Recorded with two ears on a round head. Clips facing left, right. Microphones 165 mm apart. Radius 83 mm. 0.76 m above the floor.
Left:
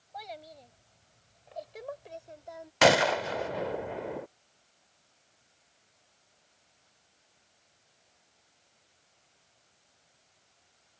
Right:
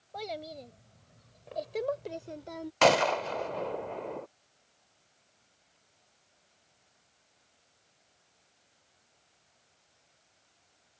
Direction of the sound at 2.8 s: 10° left (ahead or behind).